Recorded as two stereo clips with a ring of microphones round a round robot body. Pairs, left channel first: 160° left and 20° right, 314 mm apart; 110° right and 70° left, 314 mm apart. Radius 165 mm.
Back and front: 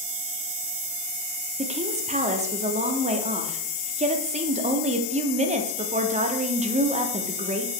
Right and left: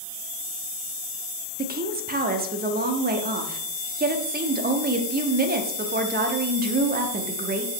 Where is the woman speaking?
30° left, 0.8 m.